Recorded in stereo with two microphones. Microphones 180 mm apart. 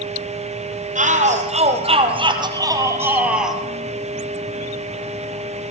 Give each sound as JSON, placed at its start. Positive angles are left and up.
{"t": 0.9, "sound": "a shout", "side_deg": -45, "distance_m": 3.0}